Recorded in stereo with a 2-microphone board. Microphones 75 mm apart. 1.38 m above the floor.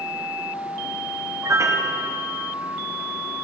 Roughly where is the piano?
Right.